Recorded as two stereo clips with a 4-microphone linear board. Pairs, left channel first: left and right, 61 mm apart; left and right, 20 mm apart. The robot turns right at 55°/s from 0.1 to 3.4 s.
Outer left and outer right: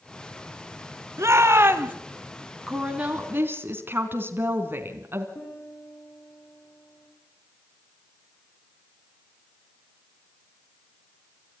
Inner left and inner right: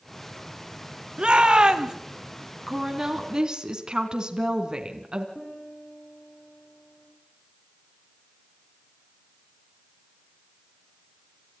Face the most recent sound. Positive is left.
turn(degrees=80)